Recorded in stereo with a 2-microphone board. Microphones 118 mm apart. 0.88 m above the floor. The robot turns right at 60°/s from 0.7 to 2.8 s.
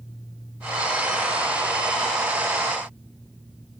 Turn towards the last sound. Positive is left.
No sound to turn to.